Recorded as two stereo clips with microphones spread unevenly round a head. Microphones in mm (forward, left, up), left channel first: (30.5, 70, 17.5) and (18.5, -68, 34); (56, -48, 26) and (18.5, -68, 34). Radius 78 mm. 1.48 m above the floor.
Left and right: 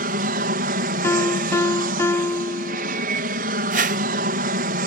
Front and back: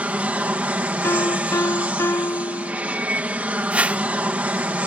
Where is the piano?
10° left.